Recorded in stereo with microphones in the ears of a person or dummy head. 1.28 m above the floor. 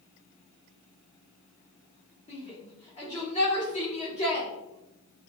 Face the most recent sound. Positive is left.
turn(degrees=35)  # may be behind; listen again after turning